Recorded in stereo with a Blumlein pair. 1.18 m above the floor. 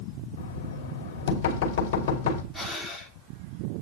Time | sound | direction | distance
0.4 | knocking | 50° left | 2.5 m
2.5 | breathing | 5° left | 2 m